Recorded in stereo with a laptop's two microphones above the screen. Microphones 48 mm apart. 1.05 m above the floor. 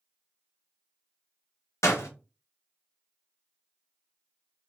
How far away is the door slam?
About 0.9 m.